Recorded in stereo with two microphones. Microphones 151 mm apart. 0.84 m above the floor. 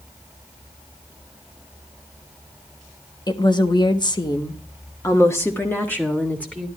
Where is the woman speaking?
30° left (ahead or behind), 1.1 m; by 6.7 s 10° left (ahead or behind), 2 m.